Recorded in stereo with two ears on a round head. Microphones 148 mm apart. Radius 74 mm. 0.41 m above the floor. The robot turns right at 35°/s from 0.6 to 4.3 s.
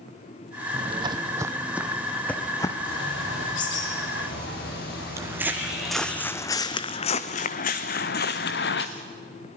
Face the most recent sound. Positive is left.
turn(degrees=75)  # may be behind; listen again after turning